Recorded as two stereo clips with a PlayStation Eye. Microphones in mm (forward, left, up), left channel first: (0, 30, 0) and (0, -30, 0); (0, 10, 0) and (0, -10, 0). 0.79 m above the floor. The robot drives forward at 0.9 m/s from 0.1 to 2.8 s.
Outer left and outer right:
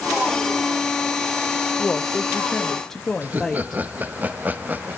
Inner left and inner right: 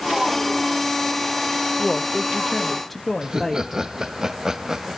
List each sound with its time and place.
1.8 s a woman speaking: 15° left (ahead or behind), 0.7 m; by 3.8 s 10° left (ahead or behind), 1.1 m
3.2 s laughter: 30° right (ahead or behind), 0.7 m